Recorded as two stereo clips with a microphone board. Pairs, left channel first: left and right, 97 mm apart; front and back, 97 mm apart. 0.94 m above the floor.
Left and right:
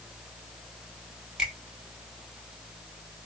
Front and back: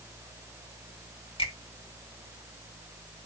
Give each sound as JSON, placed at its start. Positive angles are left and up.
{"t": 1.4, "sound": "a finger snap", "azimuth_deg": -5, "distance_m": 2.0}